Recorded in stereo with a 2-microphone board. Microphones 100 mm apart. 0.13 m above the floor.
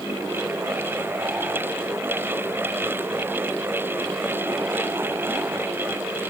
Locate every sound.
Only background noise.